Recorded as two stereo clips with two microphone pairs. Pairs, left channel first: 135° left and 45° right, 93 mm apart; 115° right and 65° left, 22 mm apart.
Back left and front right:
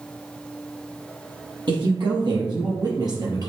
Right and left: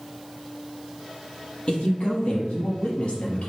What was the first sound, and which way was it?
A woman speaking, 80° right.